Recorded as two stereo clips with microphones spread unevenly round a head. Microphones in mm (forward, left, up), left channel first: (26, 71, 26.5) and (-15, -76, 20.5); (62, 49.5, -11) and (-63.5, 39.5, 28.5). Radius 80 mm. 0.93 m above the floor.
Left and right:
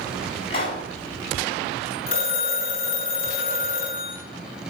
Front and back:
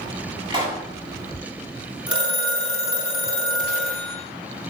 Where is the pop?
130° left, 7.5 m.